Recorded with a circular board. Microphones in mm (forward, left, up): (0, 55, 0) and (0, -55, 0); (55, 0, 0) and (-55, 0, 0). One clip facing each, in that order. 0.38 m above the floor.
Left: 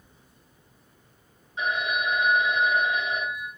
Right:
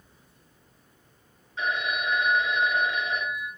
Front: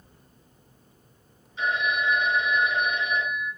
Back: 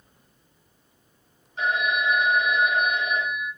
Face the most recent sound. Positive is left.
turn(degrees=160)